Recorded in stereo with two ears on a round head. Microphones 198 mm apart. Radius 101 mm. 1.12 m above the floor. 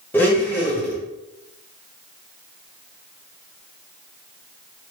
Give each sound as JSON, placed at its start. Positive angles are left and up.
{"t": 0.1, "sound": "a blender", "side_deg": 10, "distance_m": 0.9}